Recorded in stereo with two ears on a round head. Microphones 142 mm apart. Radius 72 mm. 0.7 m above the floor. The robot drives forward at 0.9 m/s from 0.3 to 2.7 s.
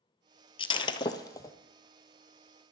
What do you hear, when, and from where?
0.6 s breaking glass: 35° left (ahead or behind), 0.8 m; by 1.6 s 20° left (ahead or behind), 1.3 m